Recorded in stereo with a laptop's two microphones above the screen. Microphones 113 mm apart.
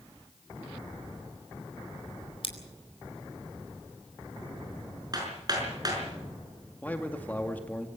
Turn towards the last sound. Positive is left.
turn(degrees=15)  # may be behind; listen again after turning